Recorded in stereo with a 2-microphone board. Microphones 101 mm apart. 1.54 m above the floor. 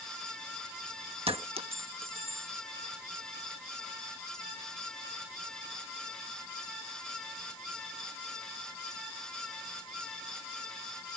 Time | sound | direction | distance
1.3 | a clink | 70° right (ahead or behind) | ?